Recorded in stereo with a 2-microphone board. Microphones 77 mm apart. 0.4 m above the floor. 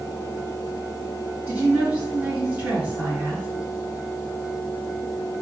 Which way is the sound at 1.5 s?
20° right (ahead or behind).